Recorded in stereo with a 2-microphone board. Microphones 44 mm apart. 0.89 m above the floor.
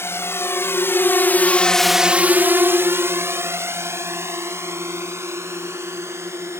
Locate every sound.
0.0 s a drone: 75° left (ahead or behind); by 6.6 s 85° right